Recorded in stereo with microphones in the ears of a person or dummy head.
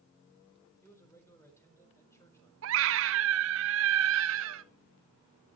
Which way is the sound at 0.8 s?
10° left (ahead or behind).